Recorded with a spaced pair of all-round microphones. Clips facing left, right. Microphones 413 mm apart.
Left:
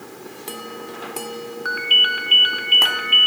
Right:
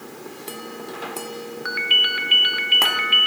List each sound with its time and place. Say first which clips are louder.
1.6 s a ringtone: left 1 dB; 40° right (ahead or behind), 0.6 m